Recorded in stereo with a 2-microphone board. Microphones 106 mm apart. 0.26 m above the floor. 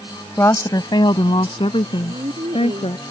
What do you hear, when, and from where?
0.4 s a woman speaking: 25° left (ahead or behind); by 3.0 s 75° left (ahead or behind)
2.0 s a woman speaking: 75° right (ahead or behind)